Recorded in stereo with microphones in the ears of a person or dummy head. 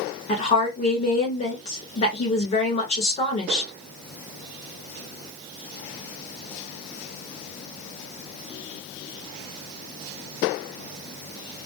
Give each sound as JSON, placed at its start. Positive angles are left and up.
{"t": 0.3, "sound": "a woman speaking", "side_deg": 35, "distance_m": 1.3}